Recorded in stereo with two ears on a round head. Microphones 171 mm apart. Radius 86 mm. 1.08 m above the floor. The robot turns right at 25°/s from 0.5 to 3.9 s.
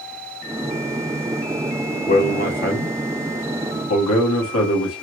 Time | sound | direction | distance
2.1 | a man speaking | 40° left | 1.5 m